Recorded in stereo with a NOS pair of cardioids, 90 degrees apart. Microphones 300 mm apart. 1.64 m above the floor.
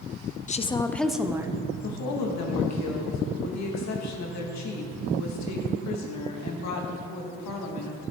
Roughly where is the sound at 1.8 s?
Ahead left.